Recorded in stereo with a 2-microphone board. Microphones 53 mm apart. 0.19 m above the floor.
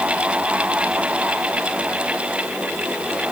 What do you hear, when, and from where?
Only background noise.